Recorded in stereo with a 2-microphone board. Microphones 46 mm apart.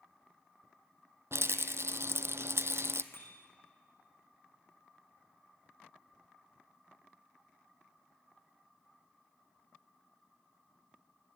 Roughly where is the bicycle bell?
Left.